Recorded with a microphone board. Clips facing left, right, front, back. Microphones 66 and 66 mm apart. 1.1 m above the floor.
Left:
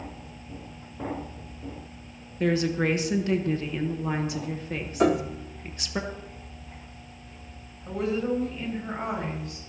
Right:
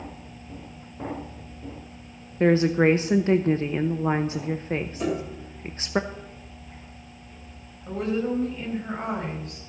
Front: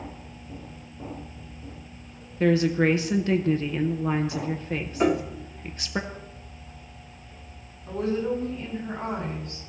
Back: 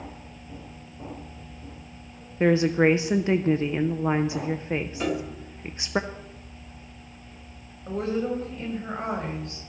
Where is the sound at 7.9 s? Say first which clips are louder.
Right 1 dB, front 1 dB; straight behind, 5 m.